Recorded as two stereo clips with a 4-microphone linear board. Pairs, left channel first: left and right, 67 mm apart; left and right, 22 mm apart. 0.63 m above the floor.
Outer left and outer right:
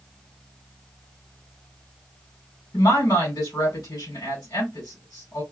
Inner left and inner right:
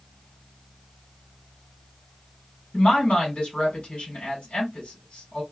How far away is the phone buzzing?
I don't hear a phone buzzing.